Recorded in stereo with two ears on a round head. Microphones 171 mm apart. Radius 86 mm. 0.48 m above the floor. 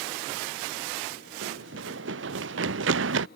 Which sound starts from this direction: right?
Running footsteps, at 1.4 s.